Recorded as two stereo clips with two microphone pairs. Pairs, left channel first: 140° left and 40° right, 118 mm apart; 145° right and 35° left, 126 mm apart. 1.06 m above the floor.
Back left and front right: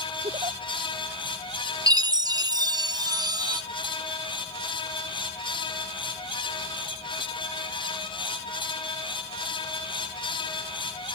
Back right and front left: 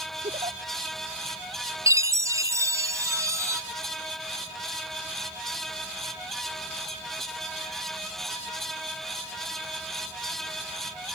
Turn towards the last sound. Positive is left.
turn(degrees=-10)